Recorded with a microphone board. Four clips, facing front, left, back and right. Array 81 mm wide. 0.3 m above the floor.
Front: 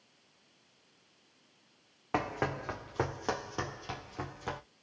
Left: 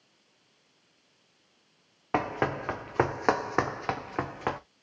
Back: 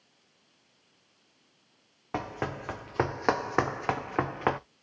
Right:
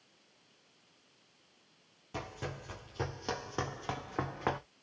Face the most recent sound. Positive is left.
turn(degrees=175)